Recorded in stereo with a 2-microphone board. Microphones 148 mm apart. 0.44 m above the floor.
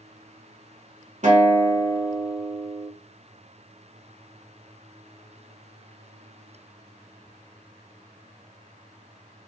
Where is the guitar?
55° right (ahead or behind), 0.9 m.